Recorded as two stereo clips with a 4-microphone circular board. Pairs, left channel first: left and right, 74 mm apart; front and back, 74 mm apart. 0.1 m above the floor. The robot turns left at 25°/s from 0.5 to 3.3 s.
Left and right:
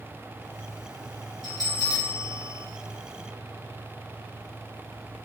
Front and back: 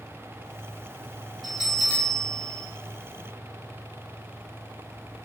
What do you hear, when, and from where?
1.4 s a bell: 90° left, 1.6 m; by 2.6 s 60° left, 1.6 m